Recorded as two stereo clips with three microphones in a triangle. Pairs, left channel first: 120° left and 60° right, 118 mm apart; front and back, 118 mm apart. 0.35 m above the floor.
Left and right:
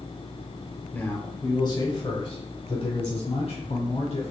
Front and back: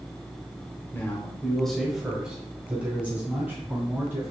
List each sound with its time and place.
0.9 s a man speaking: 55° left, 0.9 m; by 4.3 s 110° left, 2.5 m